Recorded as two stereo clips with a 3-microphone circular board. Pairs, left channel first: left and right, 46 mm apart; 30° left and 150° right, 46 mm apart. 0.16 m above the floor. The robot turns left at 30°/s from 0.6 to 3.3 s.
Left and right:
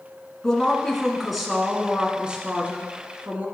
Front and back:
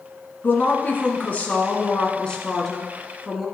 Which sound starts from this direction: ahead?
A woman speaking, at 0.4 s.